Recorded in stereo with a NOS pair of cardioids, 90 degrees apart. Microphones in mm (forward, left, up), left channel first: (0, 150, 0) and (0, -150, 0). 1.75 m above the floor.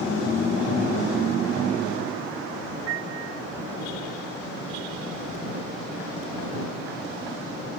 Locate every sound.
2.9 s a piano: 65° right